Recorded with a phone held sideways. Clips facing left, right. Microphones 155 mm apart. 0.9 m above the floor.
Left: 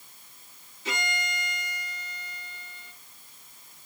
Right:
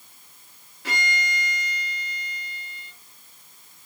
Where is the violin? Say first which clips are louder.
Right 3 dB; 85° right, 9.5 m.